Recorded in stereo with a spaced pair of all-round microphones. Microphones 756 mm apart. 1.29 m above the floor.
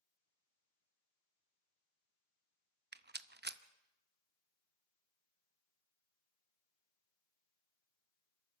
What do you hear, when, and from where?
2.9 s a rattle: 15° right (ahead or behind), 0.6 m